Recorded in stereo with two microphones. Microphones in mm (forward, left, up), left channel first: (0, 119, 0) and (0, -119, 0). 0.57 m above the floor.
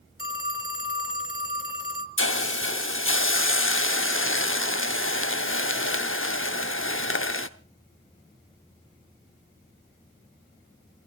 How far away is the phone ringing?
About 1.7 m.